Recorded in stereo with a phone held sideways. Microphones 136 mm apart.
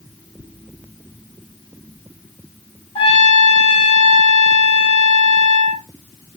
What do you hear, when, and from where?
3.0 s a trumpet: 35° left (ahead or behind), 1.9 m